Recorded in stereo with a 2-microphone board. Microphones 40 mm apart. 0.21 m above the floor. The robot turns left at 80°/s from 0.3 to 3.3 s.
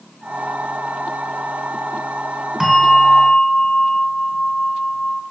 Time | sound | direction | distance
2.6 | a bell | 170° right | 1.9 m